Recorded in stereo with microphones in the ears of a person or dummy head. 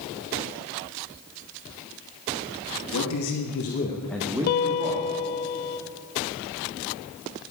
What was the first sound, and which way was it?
A man speaking, 85° left.